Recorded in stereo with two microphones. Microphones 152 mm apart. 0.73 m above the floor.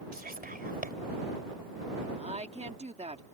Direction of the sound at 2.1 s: 45° right (ahead or behind).